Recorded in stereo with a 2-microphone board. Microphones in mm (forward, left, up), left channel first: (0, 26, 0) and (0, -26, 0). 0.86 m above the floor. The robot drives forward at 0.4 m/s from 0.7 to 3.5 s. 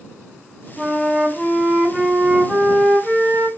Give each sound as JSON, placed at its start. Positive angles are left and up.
{"t": 0.8, "sound": "a flute", "side_deg": -5, "distance_m": 0.6}